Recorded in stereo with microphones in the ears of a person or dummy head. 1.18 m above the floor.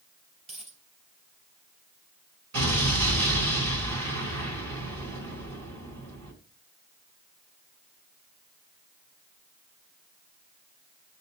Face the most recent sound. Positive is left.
turn(degrees=-75)  # may be behind; listen again after turning